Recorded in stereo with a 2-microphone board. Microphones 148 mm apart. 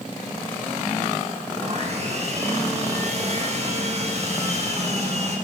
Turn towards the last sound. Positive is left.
turn(degrees=-50)  # may be behind; listen again after turning